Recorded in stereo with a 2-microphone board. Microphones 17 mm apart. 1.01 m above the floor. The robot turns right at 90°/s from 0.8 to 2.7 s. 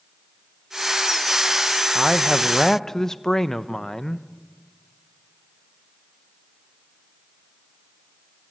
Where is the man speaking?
40° right, 0.7 m; by 4.2 s 30° left, 0.7 m.